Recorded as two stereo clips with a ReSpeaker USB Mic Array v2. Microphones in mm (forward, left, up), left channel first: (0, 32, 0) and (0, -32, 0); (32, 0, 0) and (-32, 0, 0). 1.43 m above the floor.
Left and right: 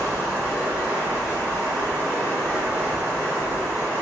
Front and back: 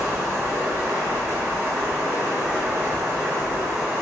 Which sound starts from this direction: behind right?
Running water, at 0.0 s.